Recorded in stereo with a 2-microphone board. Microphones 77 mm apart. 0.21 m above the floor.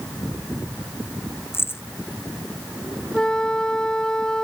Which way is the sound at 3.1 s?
10° left (ahead or behind).